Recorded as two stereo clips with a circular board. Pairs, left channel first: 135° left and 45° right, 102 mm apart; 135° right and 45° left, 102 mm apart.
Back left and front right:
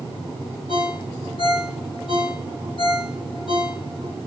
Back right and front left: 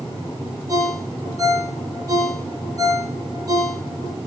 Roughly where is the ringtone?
Left.